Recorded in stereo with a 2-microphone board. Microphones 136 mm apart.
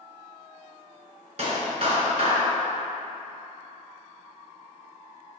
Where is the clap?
50° right (ahead or behind), 1.9 m.